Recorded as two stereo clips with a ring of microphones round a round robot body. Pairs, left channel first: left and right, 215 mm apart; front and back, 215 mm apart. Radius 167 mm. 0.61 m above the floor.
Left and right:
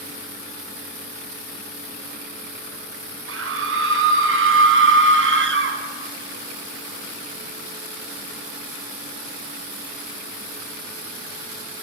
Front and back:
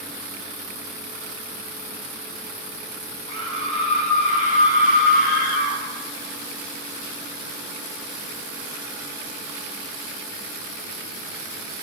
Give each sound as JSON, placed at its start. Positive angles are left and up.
{"t": 3.3, "sound": "a scream", "azimuth_deg": -75, "distance_m": 4.0}